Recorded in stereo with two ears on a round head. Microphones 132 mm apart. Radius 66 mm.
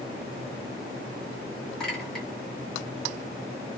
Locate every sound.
1.8 s a clink: 5° left (ahead or behind), 1.2 m